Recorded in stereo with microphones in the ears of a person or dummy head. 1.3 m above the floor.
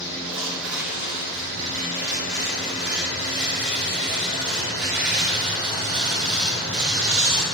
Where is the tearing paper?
10° right (ahead or behind), 2.5 m.